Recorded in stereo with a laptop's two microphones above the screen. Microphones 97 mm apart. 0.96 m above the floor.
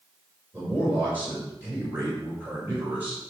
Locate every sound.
0.5 s a man speaking: 20° right (ahead or behind), 4.5 m